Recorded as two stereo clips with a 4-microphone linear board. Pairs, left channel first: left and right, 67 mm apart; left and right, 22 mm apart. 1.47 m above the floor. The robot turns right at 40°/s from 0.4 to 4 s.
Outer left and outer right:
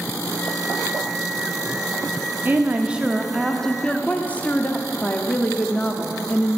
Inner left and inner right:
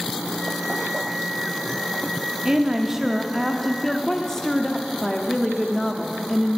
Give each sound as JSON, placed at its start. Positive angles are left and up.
{"t": 2.5, "sound": "a woman speaking", "azimuth_deg": -35, "distance_m": 0.5}